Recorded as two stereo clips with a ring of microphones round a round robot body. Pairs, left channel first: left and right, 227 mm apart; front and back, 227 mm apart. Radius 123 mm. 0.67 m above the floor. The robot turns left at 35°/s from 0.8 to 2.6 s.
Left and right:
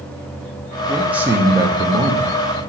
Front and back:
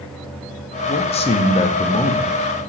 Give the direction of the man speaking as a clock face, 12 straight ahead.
12 o'clock.